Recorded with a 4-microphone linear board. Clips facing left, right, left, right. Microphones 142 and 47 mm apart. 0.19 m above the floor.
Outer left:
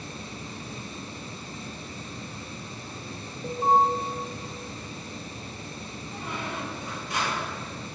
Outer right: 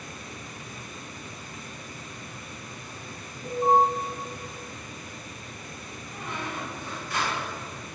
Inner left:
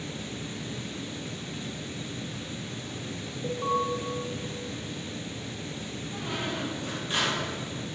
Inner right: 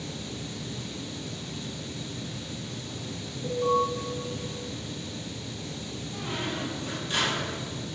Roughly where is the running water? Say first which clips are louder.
Outer left 3 dB, even; left.